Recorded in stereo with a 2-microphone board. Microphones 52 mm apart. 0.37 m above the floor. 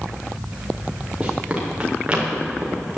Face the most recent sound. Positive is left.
turn(degrees=-20)  # may be behind; listen again after turning